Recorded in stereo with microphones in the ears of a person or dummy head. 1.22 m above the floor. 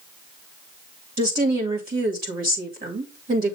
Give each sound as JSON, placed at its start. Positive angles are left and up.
{"t": 1.2, "sound": "a woman speaking", "side_deg": -45, "distance_m": 2.0}